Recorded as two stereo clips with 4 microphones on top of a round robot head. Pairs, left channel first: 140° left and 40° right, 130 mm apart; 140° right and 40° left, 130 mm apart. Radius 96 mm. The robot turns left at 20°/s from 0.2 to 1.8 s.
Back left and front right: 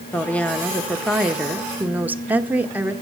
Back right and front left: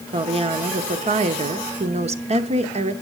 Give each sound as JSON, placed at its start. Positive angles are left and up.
{"t": 0.1, "sound": "a woman speaking", "azimuth_deg": 65, "distance_m": 1.3}